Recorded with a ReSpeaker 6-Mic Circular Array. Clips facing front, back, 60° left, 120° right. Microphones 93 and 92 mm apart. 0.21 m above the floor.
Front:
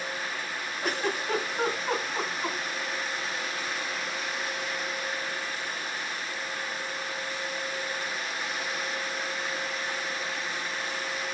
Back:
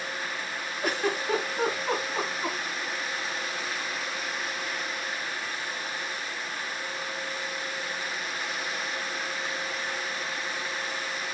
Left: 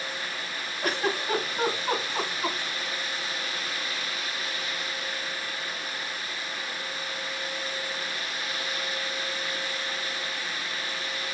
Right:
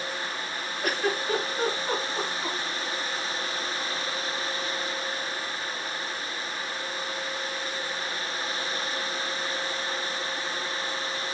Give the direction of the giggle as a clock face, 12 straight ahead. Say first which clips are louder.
Back 2 dB, even; 9 o'clock.